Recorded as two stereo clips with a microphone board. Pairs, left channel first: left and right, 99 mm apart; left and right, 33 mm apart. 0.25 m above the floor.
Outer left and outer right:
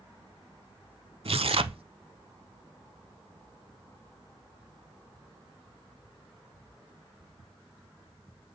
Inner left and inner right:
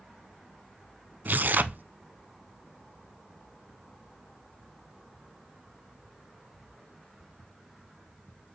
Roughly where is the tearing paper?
Right.